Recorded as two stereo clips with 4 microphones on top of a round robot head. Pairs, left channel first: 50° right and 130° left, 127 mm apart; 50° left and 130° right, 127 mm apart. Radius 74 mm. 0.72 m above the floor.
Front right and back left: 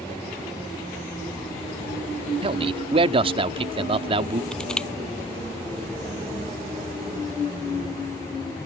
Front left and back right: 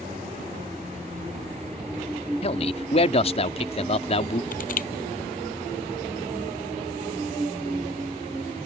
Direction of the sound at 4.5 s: 35° left.